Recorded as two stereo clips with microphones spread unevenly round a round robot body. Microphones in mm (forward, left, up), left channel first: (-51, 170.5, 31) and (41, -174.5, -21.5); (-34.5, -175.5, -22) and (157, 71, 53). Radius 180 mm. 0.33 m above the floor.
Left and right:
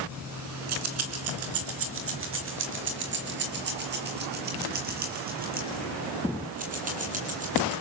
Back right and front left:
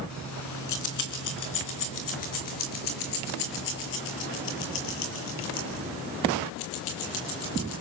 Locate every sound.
0.1 s keys jangling: 110° right, 2.5 m; by 7.8 s 145° right, 8 m